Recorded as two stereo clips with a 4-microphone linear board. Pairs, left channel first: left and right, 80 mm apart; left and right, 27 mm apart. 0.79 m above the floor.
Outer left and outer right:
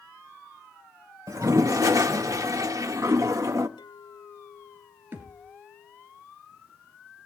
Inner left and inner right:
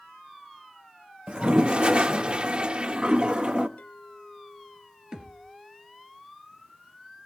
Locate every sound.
1.3 s a toilet flushing: 45° right (ahead or behind), 0.9 m
3.8 s a clink: 85° left, 1.4 m
5.1 s a thud: 30° right (ahead or behind), 2.5 m